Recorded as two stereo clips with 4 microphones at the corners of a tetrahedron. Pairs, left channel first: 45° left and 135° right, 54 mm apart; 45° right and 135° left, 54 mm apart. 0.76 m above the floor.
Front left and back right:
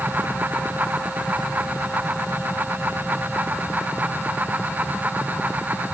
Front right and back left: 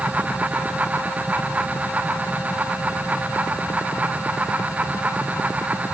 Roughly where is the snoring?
I don't hear snoring.